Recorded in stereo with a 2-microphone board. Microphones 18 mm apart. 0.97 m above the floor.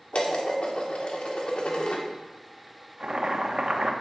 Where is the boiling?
55° right (ahead or behind), 0.8 m.